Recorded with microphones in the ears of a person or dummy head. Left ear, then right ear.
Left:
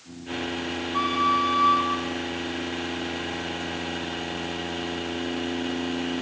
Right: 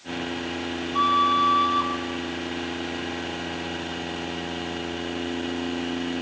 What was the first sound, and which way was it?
A flute, 25° left (ahead or behind).